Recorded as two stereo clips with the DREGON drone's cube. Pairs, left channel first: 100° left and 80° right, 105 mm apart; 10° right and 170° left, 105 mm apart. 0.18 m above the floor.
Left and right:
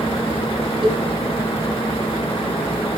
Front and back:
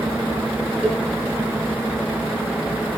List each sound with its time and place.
0.8 s a cowbell: 115° right, 3 m